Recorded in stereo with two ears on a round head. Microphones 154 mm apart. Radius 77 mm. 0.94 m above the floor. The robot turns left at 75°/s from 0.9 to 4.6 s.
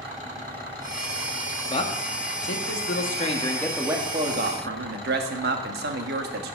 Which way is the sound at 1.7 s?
155° left.